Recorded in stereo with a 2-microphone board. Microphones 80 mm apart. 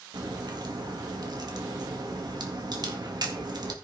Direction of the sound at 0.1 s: 60° right (ahead or behind).